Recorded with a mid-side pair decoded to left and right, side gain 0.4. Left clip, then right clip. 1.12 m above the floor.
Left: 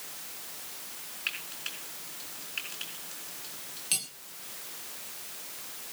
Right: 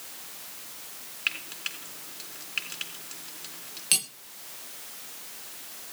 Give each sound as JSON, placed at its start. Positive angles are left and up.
{"t": 1.3, "sound": "frying", "azimuth_deg": -55, "distance_m": 3.5}
{"t": 3.9, "sound": "cutlery clinking", "azimuth_deg": -55, "distance_m": 1.6}